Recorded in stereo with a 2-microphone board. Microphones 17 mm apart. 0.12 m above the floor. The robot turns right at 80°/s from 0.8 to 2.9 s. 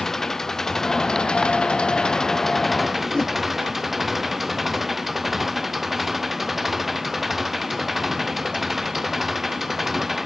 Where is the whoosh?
45° left (ahead or behind).